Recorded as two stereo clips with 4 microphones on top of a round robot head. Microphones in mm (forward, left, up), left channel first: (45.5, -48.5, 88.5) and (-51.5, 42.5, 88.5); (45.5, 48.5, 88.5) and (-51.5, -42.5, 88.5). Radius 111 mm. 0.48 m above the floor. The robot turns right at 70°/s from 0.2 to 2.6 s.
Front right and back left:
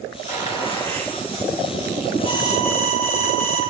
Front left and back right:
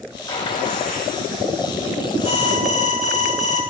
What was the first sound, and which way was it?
A gunshot, 20° right.